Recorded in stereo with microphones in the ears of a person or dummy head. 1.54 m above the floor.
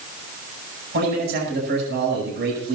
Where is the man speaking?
70° right (ahead or behind), 9.5 m.